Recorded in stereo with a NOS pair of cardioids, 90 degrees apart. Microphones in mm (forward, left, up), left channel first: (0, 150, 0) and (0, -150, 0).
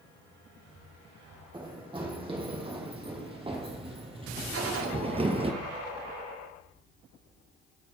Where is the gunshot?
50° right, 2 m.